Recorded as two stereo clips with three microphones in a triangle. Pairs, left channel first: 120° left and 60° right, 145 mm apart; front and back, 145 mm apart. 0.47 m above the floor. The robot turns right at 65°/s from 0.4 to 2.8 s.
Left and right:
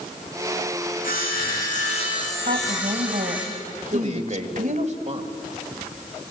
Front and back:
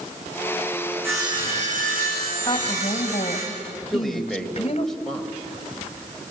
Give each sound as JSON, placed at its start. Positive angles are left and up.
{"t": 1.0, "sound": "sawing", "azimuth_deg": 105, "distance_m": 7.0}
{"t": 2.5, "sound": "a woman speaking", "azimuth_deg": -65, "distance_m": 2.0}
{"t": 3.9, "sound": "a man speaking", "azimuth_deg": -90, "distance_m": 2.0}